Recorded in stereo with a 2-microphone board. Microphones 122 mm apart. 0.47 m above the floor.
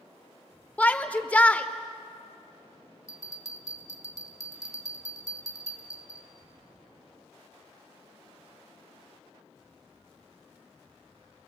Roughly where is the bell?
Left.